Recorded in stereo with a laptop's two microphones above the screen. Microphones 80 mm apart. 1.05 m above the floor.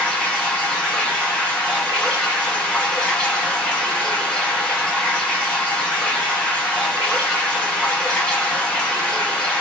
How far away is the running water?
About 1.1 m.